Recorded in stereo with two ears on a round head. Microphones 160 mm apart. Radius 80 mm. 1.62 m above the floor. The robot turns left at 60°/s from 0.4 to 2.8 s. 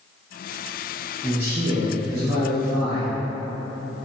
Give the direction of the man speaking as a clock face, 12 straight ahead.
12 o'clock.